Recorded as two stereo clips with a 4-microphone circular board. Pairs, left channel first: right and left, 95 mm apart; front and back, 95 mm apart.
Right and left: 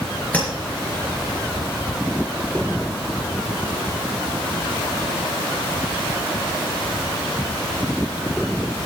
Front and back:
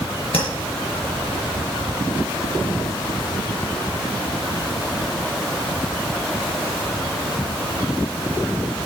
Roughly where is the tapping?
Ahead.